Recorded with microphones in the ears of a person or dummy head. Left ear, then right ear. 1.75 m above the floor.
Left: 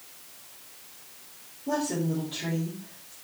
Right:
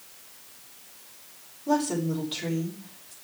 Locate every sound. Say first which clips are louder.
1.7 s a woman speaking: right 3 dB; 50° right (ahead or behind), 6 m